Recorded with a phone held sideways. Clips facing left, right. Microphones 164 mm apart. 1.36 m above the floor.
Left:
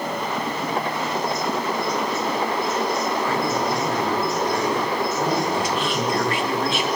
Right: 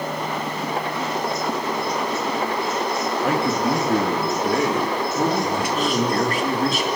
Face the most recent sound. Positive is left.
turn(degrees=-40)  # may be behind; listen again after turning